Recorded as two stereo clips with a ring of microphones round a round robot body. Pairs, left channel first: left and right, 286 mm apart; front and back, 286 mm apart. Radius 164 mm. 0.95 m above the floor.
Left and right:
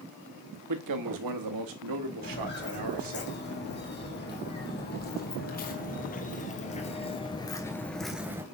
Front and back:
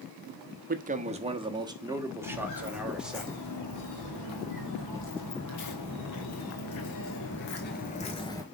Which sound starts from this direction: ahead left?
Footsteps, at 2.2 s.